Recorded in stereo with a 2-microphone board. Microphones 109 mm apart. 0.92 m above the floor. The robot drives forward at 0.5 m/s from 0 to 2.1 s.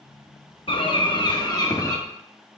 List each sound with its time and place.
0.7 s a bird: 50° left (ahead or behind), 0.9 m; by 2.0 s 30° left (ahead or behind), 1.4 m